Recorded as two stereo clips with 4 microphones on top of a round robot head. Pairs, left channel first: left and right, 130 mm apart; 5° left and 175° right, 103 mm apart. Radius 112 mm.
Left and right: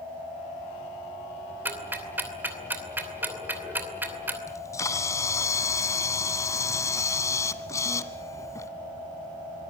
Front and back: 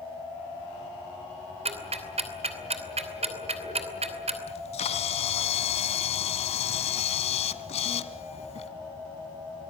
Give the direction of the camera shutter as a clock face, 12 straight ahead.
11 o'clock.